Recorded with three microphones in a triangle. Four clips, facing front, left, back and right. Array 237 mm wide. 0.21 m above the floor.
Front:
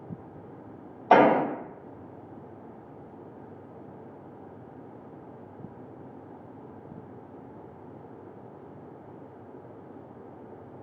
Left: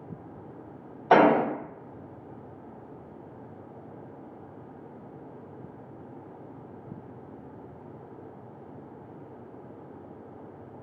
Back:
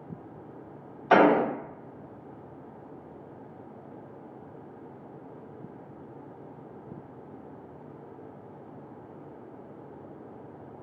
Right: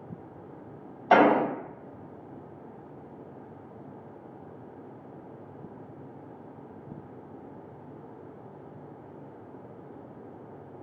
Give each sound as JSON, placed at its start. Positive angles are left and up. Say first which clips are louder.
{"t": 1.1, "sound": "an explosion", "louder": "left 1 dB, front 1 dB", "azimuth_deg": 30, "distance_m": 1.5}